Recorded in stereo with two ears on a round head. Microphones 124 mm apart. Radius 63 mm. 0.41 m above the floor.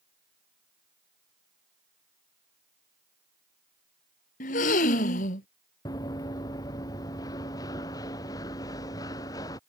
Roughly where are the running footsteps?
Left.